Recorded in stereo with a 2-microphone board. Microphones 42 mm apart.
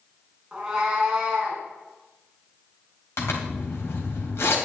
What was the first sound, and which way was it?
A cat meowing, 15° right (ahead or behind).